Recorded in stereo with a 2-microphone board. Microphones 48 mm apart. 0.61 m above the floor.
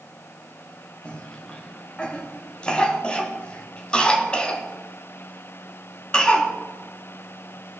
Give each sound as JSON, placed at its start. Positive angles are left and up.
{"t": 1.1, "sound": "a cough", "side_deg": 20, "distance_m": 0.9}